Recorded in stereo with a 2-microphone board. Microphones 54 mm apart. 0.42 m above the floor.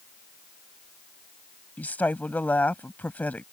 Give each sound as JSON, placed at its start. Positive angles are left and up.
{"t": 1.8, "sound": "a woman speaking", "side_deg": 30}